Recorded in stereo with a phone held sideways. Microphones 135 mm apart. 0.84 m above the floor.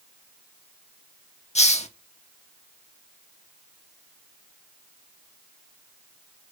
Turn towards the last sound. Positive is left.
turn(degrees=55)  # may be behind; listen again after turning